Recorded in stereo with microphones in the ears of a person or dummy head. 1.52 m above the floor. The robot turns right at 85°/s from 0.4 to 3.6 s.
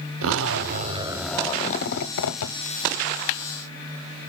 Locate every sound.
0.2 s a zipper: 75° right, 0.7 m; by 2.5 s 110° left, 0.7 m